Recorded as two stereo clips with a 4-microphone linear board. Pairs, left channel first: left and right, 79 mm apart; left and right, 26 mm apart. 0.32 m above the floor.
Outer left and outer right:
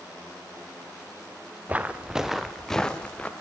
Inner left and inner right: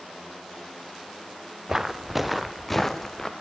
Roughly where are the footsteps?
Centre.